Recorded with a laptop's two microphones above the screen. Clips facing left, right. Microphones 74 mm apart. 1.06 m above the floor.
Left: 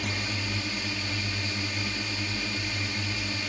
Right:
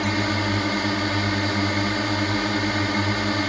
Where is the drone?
60° right (ahead or behind).